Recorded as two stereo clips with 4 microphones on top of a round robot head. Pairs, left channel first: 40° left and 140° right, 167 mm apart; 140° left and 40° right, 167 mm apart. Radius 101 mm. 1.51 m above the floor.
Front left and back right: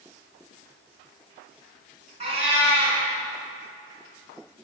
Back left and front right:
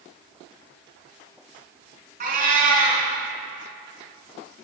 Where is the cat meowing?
85° right, 3 m.